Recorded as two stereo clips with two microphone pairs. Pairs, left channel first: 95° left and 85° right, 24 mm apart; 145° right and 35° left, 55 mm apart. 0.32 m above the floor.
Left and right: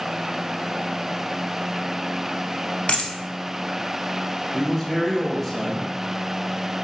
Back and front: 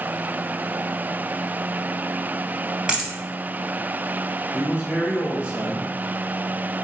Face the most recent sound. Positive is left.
turn(degrees=10)